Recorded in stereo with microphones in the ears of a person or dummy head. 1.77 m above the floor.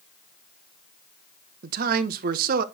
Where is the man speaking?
55° right (ahead or behind), 1.0 m.